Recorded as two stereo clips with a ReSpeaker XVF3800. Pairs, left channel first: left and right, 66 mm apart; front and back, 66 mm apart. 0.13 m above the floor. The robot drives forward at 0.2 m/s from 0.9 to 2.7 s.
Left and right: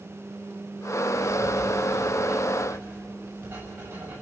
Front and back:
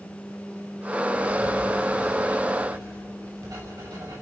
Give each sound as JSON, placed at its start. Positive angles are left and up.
{"t": 1.1, "sound": "writing", "azimuth_deg": -150, "distance_m": 6.5}